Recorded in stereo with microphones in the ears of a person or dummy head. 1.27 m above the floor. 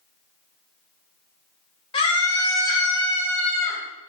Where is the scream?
25° left (ahead or behind), 1.3 m; by 3.8 s 5° left (ahead or behind), 3.5 m.